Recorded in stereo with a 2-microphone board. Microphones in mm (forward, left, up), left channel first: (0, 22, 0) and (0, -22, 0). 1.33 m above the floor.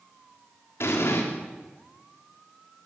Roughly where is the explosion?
Left.